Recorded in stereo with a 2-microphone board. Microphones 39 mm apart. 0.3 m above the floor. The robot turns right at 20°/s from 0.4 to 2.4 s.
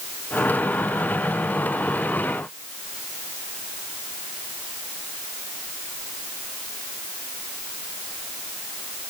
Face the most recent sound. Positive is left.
No sound to turn to.